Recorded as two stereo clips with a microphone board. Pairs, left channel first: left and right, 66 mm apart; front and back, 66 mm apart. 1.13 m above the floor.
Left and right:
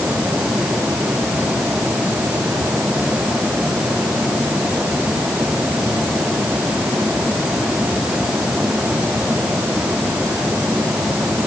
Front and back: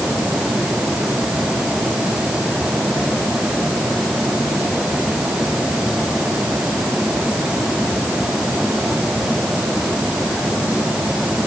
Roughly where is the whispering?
I don't hear whispering.